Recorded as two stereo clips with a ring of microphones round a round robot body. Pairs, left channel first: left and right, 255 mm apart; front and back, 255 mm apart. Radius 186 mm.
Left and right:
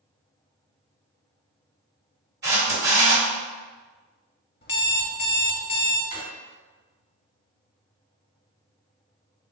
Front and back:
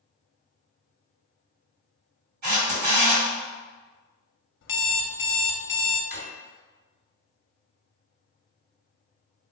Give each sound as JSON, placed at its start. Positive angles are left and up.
{"t": 2.4, "sound": "a camera shutter", "azimuth_deg": -150, "distance_m": 1.3}
{"t": 4.6, "sound": "an alarm clock", "azimuth_deg": 40, "distance_m": 0.6}
{"t": 6.1, "sound": "a drawer", "azimuth_deg": 140, "distance_m": 1.5}